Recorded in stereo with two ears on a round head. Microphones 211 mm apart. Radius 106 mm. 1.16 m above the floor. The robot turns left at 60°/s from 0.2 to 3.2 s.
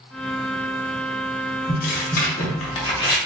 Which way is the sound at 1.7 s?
110° left.